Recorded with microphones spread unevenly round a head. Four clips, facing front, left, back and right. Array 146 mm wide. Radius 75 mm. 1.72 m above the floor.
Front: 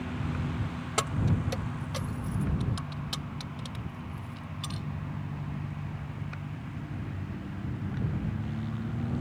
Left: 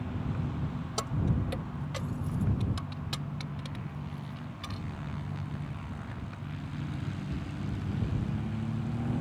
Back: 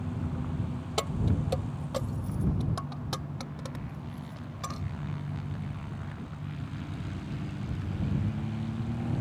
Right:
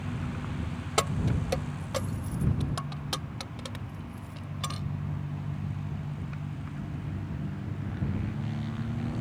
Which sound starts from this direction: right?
Keys jangling, at 1.0 s.